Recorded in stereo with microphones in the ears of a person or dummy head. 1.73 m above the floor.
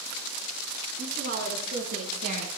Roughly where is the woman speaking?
Right.